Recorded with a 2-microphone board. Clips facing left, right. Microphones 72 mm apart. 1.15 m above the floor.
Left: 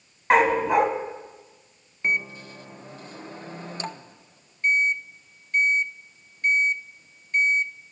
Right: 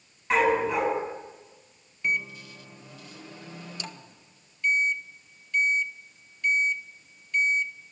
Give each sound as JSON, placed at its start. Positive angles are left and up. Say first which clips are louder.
{"t": 0.3, "sound": "a dog barking", "louder": "left 4 dB", "side_deg": 55, "distance_m": 3.5}
{"t": 2.0, "sound": "a microwave", "louder": "left 3 dB", "side_deg": 40, "distance_m": 0.7}